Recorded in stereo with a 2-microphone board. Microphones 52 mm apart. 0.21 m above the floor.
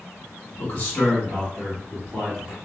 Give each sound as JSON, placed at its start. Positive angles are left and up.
{"t": 0.6, "sound": "a man speaking", "side_deg": 30, "distance_m": 1.8}